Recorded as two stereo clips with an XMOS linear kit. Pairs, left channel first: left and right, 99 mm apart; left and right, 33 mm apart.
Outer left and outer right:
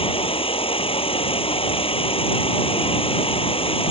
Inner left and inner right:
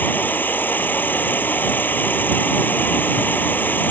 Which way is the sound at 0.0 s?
70° left (ahead or behind).